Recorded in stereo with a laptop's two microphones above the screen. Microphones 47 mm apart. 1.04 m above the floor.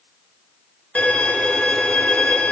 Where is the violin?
30° left (ahead or behind), 1.0 m.